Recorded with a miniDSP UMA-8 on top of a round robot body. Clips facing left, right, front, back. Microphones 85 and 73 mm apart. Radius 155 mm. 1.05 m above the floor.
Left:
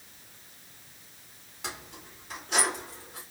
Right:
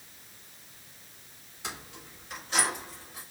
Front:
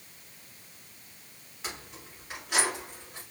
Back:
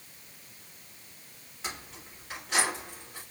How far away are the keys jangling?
About 1.9 m.